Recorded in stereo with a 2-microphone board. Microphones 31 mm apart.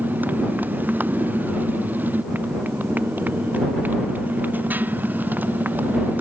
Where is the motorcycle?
75° right (ahead or behind).